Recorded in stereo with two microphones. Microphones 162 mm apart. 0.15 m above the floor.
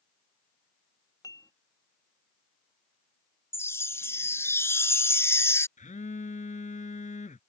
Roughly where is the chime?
Centre.